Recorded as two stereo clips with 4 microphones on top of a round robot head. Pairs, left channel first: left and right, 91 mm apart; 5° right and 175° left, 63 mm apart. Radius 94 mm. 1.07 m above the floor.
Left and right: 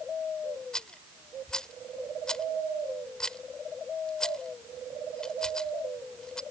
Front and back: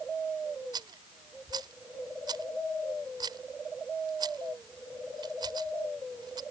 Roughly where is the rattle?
Behind.